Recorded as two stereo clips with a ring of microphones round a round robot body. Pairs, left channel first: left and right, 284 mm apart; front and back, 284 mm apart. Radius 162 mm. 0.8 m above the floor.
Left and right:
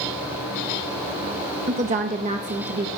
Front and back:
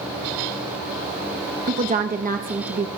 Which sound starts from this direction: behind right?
A woman speaking, at 1.7 s.